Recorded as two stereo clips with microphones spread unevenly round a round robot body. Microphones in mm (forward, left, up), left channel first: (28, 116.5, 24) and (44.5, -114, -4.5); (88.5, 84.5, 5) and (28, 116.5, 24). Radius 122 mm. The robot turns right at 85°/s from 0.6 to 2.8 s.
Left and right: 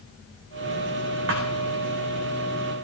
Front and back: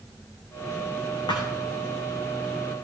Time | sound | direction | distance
1.3 | a thud | 50° right | 3 m